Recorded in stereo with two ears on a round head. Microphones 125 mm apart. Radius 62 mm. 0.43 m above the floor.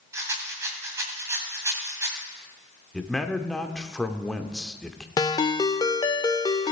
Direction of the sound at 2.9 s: 5° left (ahead or behind).